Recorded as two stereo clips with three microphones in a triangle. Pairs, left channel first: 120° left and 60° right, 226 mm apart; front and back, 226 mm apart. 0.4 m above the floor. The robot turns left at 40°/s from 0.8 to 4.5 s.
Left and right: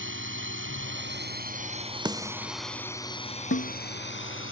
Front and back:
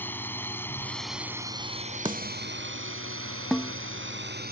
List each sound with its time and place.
0.0 s a drone: 80° right; by 4.5 s 135° left
2.0 s a snare drum: 120° right; by 2.5 s 140° right
3.5 s a snare drum: 90° left; by 3.7 s 80° left